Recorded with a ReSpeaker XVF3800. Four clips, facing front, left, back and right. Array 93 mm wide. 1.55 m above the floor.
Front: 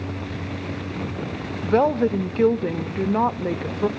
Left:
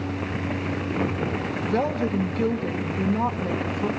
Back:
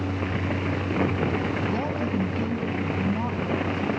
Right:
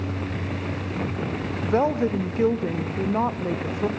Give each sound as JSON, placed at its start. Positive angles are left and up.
{"t": 1.6, "sound": "a woman speaking", "azimuth_deg": -25, "distance_m": 0.9}